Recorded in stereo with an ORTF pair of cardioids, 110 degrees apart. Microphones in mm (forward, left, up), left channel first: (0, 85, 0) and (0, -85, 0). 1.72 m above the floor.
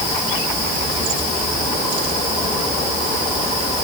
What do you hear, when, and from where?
Only background noise.